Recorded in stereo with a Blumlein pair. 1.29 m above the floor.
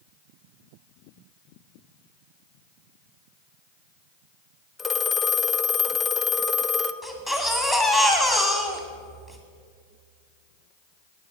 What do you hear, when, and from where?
4.8 s a phone ringing: 10° left, 0.7 m
7.0 s a baby crying: 10° right, 2 m